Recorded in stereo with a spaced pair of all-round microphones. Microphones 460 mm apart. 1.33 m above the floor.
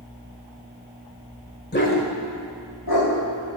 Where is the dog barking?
20° left (ahead or behind), 1.7 m; by 3.1 s 55° left (ahead or behind), 2.5 m.